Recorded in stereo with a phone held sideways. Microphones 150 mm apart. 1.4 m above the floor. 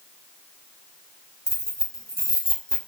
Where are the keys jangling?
20° left (ahead or behind), 0.9 m.